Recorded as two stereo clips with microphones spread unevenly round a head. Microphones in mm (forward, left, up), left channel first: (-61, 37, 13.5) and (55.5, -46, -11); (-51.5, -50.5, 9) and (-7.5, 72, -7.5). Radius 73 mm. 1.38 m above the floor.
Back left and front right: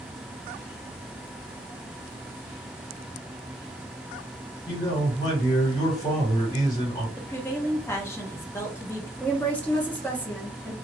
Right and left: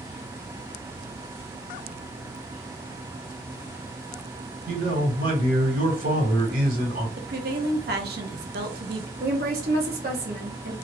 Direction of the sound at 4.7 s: 75° left.